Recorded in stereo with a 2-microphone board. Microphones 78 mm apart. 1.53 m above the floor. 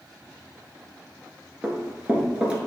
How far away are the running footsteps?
About 1.5 m.